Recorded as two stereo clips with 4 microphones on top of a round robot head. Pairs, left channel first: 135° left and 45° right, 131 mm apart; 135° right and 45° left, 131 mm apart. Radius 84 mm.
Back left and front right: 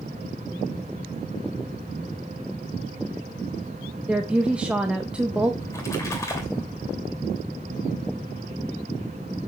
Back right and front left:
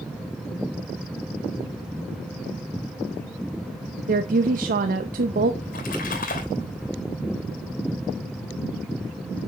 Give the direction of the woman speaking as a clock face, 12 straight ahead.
11 o'clock.